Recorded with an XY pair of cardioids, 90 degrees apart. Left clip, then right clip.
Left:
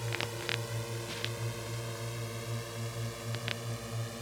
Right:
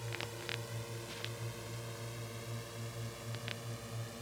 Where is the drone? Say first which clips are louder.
Left 7 dB; 50° left; by 4.2 s 45° left.